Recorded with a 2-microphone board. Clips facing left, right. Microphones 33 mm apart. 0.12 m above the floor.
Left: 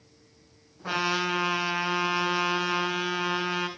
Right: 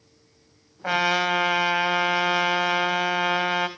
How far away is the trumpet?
About 2.5 m.